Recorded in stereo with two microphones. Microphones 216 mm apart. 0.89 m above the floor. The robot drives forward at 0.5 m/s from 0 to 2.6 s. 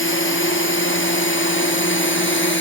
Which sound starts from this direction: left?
A drone, at 0.0 s.